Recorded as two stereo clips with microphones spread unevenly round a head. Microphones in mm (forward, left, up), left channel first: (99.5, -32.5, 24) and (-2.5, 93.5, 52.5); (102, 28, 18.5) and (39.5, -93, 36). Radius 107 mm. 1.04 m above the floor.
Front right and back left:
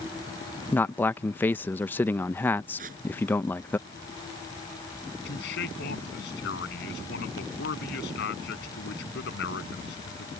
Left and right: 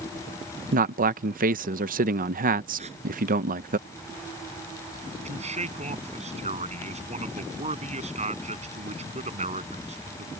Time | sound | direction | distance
0.7 | a man speaking | 125° right | ?
2.8 | tearing paper | straight behind | ?
5.2 | a man speaking | 80° right | ?